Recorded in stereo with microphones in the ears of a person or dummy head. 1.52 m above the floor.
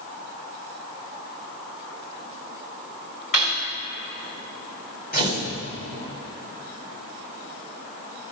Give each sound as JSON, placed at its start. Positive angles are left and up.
{"t": 3.3, "sound": "cutlery clinking", "side_deg": 35, "distance_m": 2.0}
{"t": 5.1, "sound": "tearing paper", "side_deg": 40, "distance_m": 2.0}